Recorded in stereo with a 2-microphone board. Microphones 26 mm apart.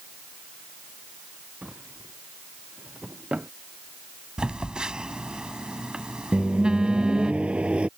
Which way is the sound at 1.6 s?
50° right (ahead or behind).